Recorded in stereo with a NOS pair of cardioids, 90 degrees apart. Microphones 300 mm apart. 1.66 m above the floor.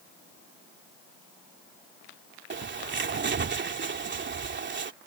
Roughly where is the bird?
Ahead right.